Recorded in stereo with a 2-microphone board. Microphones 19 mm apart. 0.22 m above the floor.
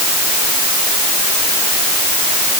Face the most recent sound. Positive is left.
No sound to turn to.